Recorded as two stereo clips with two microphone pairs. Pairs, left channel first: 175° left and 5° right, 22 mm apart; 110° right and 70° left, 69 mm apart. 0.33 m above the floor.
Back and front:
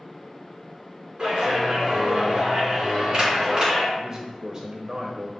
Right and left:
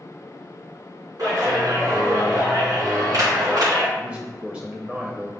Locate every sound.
1.2 s a clap: 45° left, 3 m
4.0 s a man speaking: 15° left, 0.9 m